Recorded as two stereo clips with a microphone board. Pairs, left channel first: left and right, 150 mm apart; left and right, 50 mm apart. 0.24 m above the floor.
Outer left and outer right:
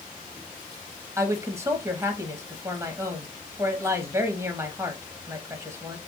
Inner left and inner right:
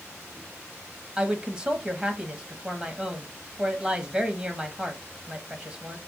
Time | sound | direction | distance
1.2 | a woman speaking | 20° right (ahead or behind) | 1.0 m